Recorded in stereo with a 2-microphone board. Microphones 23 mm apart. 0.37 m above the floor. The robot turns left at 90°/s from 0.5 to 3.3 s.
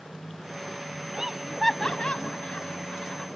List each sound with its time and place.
1.1 s laughter: 35° right (ahead or behind); by 3.3 s 25° left (ahead or behind)